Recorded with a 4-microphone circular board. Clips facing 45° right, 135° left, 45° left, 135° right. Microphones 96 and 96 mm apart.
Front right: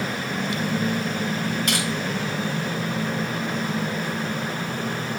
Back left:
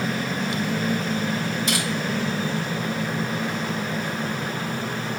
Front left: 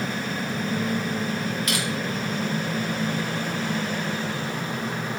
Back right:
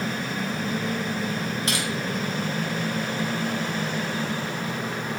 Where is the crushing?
75° right, 4.5 m.